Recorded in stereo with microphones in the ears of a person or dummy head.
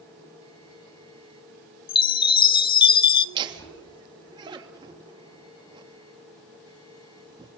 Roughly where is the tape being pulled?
I don't hear tape being pulled.